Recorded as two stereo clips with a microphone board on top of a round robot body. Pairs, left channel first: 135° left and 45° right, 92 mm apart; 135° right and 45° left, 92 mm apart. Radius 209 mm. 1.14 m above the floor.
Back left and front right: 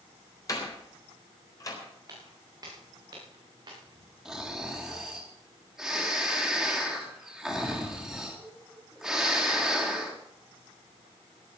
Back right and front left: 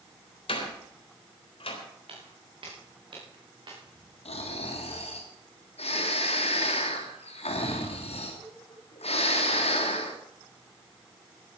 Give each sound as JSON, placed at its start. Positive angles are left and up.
{"t": 0.5, "sound": "a door slam", "azimuth_deg": -165, "distance_m": 4.0}
{"t": 2.1, "sound": "footsteps", "azimuth_deg": 10, "distance_m": 6.5}
{"t": 4.2, "sound": "snoring", "azimuth_deg": -130, "distance_m": 3.5}